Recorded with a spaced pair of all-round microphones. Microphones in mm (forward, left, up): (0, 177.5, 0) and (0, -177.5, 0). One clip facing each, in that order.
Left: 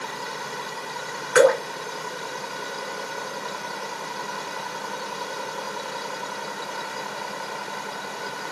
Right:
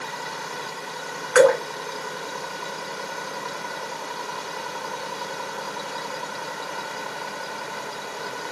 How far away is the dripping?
About 2.5 m.